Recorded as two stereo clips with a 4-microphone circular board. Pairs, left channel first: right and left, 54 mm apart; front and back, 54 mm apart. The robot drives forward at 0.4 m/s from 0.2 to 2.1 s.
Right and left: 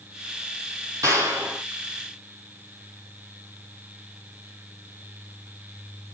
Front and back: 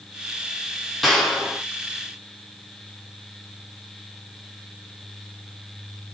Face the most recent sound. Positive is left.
turn(degrees=95)